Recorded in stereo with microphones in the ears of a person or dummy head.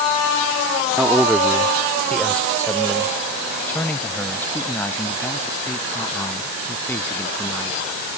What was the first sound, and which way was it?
A man speaking, 10° right (ahead or behind).